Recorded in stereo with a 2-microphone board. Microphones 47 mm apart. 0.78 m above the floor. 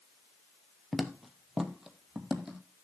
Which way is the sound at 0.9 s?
Centre (ahead or behind).